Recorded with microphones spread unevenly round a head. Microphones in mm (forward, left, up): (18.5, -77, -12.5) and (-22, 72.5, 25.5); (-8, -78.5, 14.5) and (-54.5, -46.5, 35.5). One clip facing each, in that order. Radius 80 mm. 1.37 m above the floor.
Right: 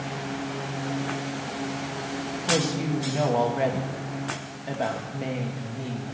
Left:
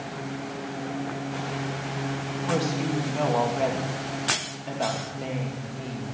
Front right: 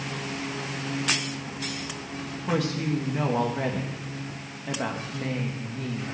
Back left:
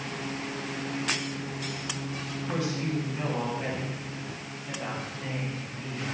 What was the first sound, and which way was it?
A woman speaking, 5° left.